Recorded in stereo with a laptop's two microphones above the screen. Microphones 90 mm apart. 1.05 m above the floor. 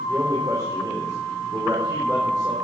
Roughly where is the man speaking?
Right.